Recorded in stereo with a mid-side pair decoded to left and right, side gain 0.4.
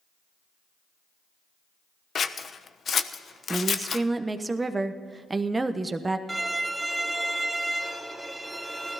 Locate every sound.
2.1 s scissors: 50° left, 1.0 m
3.5 s a woman speaking: 25° right, 1.1 m
6.3 s a violin: 10° right, 1.6 m